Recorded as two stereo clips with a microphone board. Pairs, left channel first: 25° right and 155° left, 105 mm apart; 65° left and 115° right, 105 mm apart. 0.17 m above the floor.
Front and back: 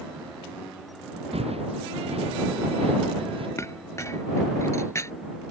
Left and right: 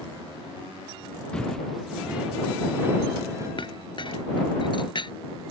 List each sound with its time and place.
1.3 s footsteps: 150° left; by 3.5 s 170° right
3.6 s a clink: 35° left